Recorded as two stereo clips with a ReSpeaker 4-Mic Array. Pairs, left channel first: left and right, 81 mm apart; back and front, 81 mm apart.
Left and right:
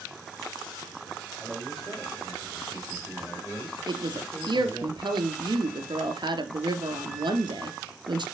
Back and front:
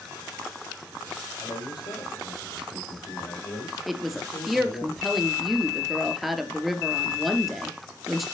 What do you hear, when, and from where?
1.4 s a man speaking: 175° right, 6.5 m; by 4.9 s 170° left, 6.5 m
3.9 s a woman speaking: 90° right, 3 m